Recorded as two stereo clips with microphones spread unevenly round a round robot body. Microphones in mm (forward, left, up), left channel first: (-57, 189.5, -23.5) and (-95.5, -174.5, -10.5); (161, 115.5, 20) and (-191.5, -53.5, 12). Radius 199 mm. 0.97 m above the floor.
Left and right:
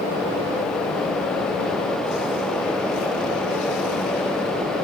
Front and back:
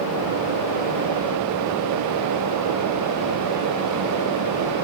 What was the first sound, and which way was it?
Only background noise.